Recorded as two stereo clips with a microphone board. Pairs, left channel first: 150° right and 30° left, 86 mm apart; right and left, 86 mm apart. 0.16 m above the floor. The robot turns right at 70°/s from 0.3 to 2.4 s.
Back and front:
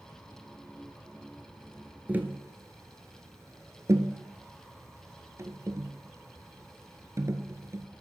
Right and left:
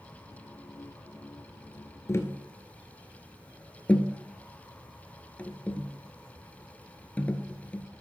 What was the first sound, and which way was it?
Tapping, 40° right.